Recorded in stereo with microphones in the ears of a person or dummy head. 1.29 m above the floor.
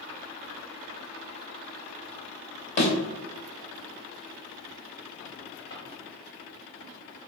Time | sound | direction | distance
2.8 | a thud | 45° left (ahead or behind) | 1.0 m
5.7 | a drawer | 15° left (ahead or behind) | 1.2 m